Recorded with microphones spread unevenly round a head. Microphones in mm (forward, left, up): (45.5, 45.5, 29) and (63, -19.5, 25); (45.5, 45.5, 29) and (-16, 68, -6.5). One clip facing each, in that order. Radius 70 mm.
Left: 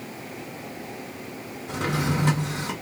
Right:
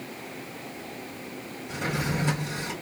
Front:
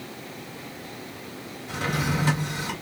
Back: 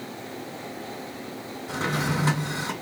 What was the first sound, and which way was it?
A drawer, 100° left.